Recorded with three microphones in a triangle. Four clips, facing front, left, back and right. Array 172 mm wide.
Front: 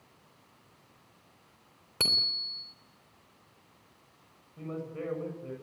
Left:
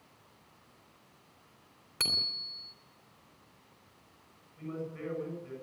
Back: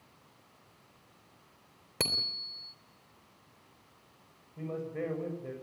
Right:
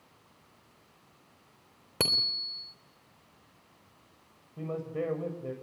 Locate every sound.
2.0 s a bicycle bell: 110° right, 3 m
4.6 s a man speaking: 105° right, 7.5 m